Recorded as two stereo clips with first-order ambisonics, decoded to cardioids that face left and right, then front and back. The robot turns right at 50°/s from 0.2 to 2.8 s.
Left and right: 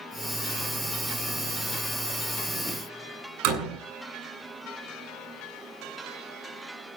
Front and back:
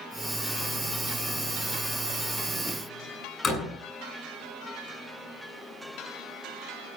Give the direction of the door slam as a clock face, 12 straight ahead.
2 o'clock.